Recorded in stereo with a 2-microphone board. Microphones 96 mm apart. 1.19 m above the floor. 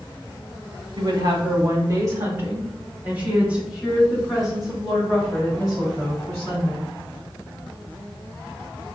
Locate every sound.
1.0 s a woman speaking: 60° right (ahead or behind), 1.3 m; by 6.9 s 5° left (ahead or behind), 4 m